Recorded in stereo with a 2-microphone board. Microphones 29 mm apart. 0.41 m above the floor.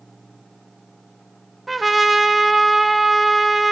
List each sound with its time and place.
1.7 s a trumpet: centre (ahead or behind), 0.6 m